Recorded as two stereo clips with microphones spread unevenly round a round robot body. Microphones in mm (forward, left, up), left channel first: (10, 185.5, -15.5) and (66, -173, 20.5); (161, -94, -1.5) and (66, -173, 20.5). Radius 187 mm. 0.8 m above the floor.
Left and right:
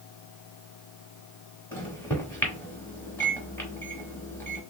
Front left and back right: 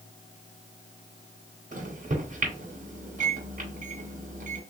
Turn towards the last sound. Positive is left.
turn(degrees=180)